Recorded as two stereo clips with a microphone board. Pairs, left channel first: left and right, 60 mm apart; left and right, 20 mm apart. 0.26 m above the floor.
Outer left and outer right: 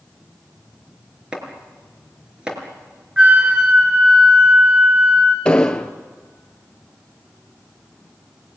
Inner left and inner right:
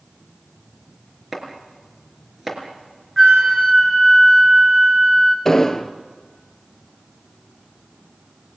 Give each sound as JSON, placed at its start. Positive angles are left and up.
{"t": 1.3, "sound": "chopping", "side_deg": -15, "distance_m": 4.5}
{"t": 3.2, "sound": "a flute", "side_deg": -20, "distance_m": 3.0}
{"t": 5.5, "sound": "an explosion", "side_deg": 15, "distance_m": 1.3}